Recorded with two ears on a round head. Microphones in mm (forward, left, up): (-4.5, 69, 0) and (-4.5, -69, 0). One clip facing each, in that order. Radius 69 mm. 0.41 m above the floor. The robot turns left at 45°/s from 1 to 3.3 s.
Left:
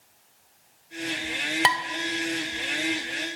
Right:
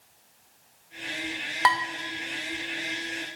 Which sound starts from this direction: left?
Dishes clattering, at 1.6 s.